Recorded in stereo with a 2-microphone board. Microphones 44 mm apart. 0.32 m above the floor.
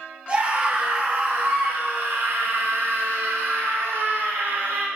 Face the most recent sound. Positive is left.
turn(degrees=-55)  # may be behind; listen again after turning